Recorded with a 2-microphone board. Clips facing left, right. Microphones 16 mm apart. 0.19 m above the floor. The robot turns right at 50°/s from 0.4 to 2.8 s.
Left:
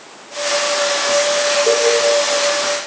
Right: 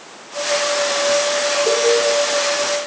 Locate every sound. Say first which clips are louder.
1.7 s a cowbell: left 1 dB; 10° left (ahead or behind), 3 m; by 1.9 s 20° left (ahead or behind), 3 m